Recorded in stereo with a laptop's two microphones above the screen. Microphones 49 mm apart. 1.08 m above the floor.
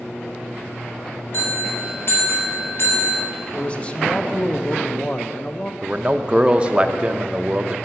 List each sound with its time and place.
1.3 s a bell: 50° left (ahead or behind), 2.5 m
3.5 s a man speaking: 25° left (ahead or behind), 0.8 m
5.8 s a man speaking: 20° right (ahead or behind), 0.6 m